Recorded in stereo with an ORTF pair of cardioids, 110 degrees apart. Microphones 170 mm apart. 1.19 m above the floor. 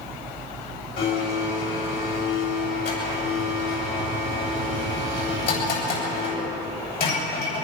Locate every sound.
1.0 s a blender: 60° left, 9 m